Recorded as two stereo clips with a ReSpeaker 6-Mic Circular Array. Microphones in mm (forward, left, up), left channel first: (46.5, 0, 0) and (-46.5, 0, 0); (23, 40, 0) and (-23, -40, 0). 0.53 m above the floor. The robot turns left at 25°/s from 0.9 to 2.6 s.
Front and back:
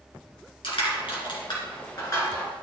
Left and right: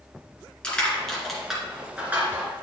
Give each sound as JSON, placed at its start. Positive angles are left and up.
{"t": 0.6, "sound": "crushing", "azimuth_deg": -20, "distance_m": 2.5}